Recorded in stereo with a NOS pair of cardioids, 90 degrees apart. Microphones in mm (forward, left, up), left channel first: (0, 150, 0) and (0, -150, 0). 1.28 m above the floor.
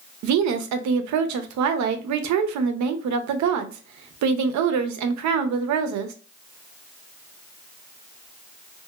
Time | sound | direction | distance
0.2 | a woman speaking | 70° right | 0.7 m